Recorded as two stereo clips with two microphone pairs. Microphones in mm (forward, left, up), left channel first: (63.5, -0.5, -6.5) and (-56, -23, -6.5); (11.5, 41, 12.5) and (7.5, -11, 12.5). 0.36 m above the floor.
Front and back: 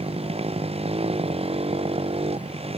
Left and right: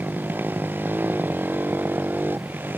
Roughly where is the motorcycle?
Behind right.